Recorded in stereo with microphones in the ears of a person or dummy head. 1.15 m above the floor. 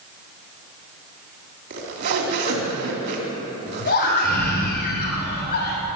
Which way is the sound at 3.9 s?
55° left (ahead or behind).